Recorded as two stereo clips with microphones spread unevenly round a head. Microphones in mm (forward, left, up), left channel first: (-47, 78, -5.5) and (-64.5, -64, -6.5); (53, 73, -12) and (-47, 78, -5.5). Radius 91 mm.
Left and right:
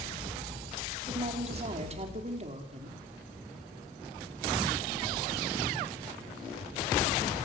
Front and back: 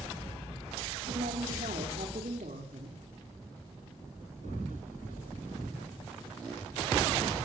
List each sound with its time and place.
1.1 s a woman speaking: 140° right, 5.5 m